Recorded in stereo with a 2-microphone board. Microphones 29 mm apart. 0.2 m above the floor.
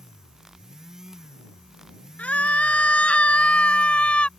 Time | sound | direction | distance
2.2 | a scream | 60° left (ahead or behind) | ?